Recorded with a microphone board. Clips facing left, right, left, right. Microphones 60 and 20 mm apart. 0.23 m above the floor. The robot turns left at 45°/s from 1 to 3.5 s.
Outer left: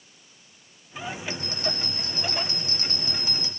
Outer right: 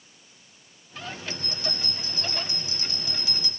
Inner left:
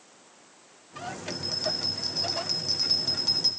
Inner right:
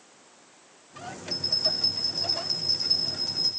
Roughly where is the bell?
Behind left.